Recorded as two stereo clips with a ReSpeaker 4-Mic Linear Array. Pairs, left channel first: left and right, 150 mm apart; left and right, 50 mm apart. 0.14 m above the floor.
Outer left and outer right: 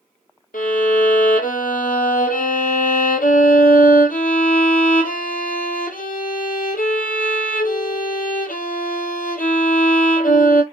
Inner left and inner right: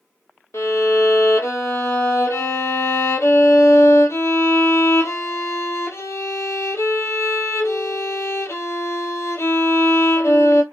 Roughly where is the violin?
Left.